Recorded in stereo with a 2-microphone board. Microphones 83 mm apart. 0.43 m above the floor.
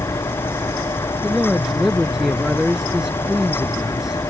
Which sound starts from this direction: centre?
A man speaking, at 1.2 s.